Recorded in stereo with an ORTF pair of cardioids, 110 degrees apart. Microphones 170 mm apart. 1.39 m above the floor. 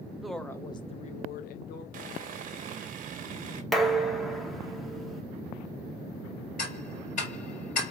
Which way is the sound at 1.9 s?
55° right.